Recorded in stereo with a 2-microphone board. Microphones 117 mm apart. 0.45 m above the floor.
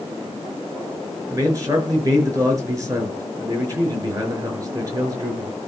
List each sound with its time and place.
1.3 s a man speaking: 30° right (ahead or behind), 6 m